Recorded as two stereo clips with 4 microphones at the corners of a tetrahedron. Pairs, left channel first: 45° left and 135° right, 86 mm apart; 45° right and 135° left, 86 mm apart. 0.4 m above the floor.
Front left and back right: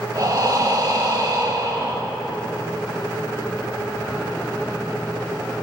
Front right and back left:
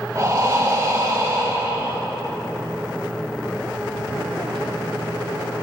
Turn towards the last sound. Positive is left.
turn(degrees=-175)